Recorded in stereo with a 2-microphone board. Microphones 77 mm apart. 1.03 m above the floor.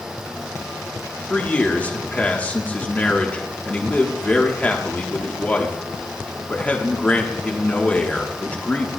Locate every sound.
1.3 s a man speaking: 20° left (ahead or behind), 1.3 m